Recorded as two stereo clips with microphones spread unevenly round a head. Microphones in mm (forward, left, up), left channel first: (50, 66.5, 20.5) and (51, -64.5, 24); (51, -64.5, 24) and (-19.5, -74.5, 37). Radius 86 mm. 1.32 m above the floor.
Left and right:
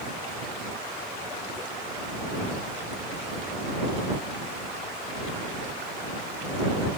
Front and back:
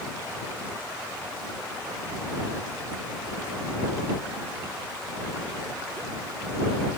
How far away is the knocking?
No knocking in this recording.